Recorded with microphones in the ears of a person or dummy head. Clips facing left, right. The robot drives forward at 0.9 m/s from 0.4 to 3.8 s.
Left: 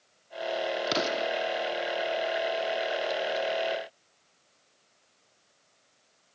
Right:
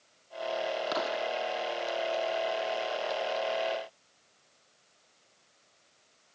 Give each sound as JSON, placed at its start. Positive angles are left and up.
{"t": 0.9, "sound": "an explosion", "side_deg": 35}